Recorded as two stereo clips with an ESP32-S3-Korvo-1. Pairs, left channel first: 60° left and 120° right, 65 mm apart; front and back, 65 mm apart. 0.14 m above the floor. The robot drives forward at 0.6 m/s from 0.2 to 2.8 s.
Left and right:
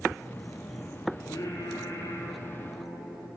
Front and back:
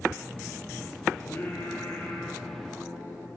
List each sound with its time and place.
1.2 s singing: 55° left, 3 m; by 3.3 s 75° left, 2.5 m